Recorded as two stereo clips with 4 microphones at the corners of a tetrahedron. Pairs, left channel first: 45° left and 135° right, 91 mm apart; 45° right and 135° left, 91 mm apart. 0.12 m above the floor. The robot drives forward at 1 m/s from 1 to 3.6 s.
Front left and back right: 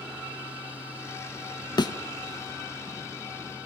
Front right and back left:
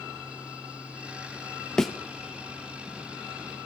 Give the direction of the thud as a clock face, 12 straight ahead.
11 o'clock.